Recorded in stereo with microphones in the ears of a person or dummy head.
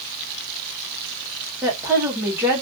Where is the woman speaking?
10° right (ahead or behind), 1.4 m.